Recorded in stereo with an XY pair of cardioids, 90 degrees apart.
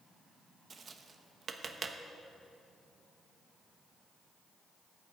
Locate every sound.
0.7 s tapping: 50° right, 0.9 m